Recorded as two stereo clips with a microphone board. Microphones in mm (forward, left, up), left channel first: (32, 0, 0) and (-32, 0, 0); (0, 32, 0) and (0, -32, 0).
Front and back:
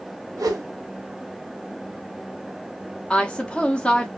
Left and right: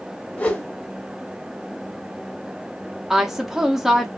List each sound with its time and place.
0.4 s a whoosh: 155° left, 0.6 m
3.1 s a woman speaking: 25° right, 0.6 m